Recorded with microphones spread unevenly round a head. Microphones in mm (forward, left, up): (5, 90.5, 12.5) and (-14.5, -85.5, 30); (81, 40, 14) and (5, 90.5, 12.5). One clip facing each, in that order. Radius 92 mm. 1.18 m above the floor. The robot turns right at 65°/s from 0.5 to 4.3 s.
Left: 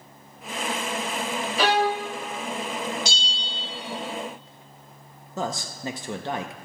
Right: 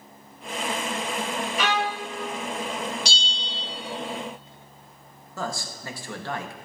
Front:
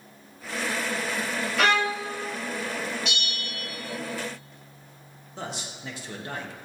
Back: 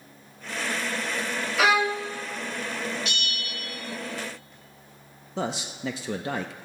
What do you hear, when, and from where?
1.6 s a violin: 60° left, 0.7 m; by 2.1 s 95° left, 0.7 m
3.0 s a bell: 125° right, 2 m; by 3.6 s 90° right, 2 m
5.4 s a man speaking: 155° left, 0.6 m